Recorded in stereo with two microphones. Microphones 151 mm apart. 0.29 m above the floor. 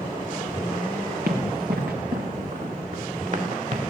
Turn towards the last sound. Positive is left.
turn(degrees=-50)  # may be behind; listen again after turning